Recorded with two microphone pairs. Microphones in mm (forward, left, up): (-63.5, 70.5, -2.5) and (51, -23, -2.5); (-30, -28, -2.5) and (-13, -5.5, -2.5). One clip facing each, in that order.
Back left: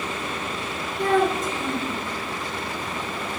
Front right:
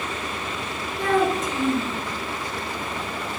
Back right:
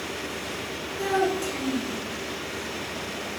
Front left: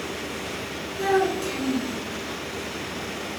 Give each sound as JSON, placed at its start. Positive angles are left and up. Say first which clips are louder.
{"t": 1.0, "sound": "a child speaking", "louder": "even, front left 2 dB", "azimuth_deg": -25, "distance_m": 3.0}